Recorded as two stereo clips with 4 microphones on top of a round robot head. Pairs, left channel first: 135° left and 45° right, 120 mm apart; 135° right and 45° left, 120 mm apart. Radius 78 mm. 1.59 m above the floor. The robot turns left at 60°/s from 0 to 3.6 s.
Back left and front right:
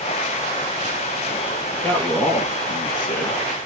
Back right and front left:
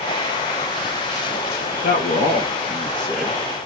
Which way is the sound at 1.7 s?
135° right.